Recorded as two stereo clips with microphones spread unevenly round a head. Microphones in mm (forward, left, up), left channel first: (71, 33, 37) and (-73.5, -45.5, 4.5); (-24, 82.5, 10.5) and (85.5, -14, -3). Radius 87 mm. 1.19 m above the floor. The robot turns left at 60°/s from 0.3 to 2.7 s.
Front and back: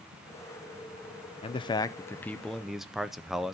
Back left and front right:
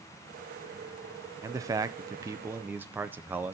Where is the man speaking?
15° right, 0.5 m; by 3.5 s 90° right, 0.5 m.